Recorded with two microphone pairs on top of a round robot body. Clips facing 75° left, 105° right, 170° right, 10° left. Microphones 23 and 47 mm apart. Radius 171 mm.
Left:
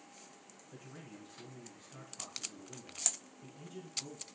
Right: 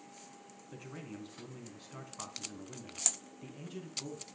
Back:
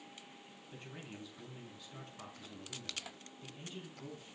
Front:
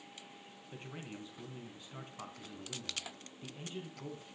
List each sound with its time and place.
0.7 s a man speaking: 55° right, 4.5 m